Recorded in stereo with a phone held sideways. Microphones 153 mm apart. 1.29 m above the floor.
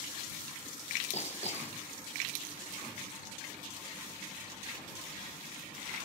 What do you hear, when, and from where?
1.1 s hammering: 45° left (ahead or behind)